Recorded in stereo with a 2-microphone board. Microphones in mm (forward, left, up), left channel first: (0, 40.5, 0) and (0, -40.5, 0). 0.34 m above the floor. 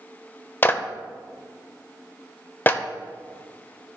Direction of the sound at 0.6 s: 30° left (ahead or behind).